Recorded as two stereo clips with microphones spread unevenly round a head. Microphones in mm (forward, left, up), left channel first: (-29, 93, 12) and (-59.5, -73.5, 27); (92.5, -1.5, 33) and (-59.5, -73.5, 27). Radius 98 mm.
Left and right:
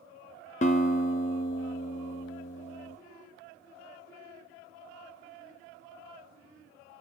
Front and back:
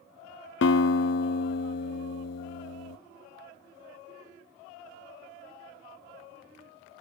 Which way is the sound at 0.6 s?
30° left.